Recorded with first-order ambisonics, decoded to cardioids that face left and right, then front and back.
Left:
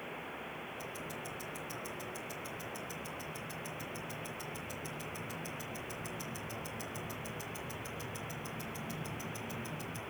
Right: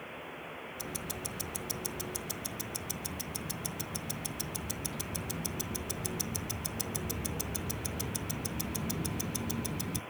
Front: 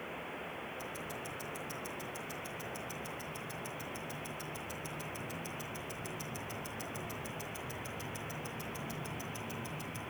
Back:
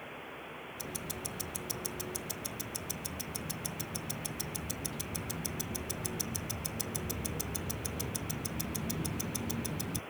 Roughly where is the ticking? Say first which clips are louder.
Right 2 dB, even; behind right.